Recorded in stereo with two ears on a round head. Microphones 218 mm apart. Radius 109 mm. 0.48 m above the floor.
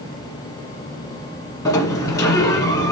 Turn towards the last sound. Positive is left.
turn(degrees=15)  # may be behind; listen again after turning